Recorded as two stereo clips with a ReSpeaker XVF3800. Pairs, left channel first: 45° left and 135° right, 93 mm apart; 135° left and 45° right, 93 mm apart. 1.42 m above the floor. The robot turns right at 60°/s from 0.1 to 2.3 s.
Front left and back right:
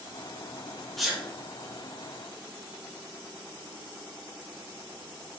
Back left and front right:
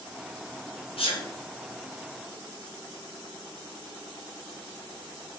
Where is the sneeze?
135° left, 1.2 m; by 1.3 s 150° left, 1.2 m.